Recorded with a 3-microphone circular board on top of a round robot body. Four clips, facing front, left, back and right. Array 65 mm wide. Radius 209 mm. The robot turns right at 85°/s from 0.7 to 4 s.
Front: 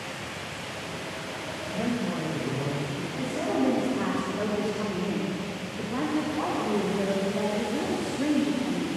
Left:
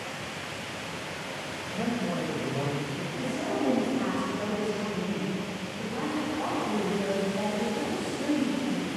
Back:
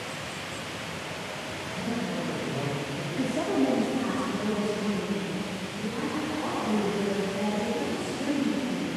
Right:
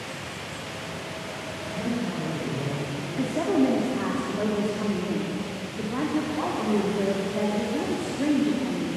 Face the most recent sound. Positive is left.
turn(degrees=-60)